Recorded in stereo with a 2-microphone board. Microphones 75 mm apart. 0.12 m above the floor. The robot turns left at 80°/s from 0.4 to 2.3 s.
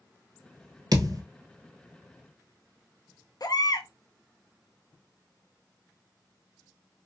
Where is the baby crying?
60° left (ahead or behind), 0.7 m.